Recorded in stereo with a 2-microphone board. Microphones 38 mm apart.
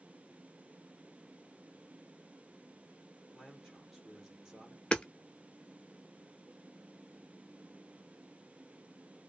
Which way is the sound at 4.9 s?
25° left (ahead or behind).